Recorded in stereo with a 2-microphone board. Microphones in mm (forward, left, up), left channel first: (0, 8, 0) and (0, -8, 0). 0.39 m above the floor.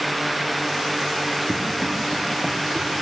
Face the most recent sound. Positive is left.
turn(degrees=-25)  # may be behind; listen again after turning